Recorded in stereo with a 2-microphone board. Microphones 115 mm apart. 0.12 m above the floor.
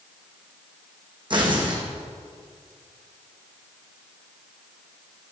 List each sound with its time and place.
1.3 s tearing paper: 45° right (ahead or behind), 3.5 m